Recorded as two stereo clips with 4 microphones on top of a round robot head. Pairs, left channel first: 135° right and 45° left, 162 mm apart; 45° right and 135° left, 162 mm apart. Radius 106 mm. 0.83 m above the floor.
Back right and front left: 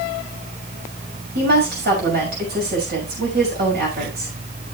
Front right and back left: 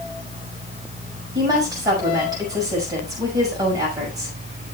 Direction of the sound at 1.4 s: 65° left.